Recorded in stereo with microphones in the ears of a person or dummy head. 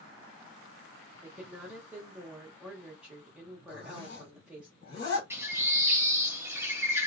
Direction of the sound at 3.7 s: 55° left (ahead or behind).